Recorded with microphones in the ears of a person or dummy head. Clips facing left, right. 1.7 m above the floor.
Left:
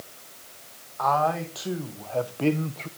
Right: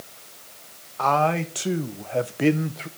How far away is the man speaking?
About 1.7 m.